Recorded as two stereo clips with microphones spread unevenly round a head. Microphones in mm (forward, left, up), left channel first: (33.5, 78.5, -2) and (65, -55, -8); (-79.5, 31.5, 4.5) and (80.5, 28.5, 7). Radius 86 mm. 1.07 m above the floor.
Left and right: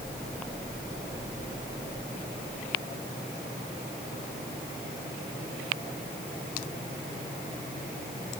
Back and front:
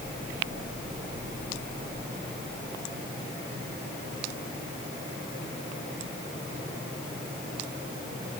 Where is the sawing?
No sawing in this recording.